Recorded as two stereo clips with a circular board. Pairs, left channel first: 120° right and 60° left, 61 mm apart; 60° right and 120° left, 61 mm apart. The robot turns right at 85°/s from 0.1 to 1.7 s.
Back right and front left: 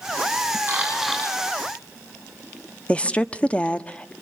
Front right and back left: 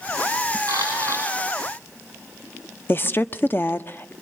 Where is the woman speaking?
65° right, 1.0 m.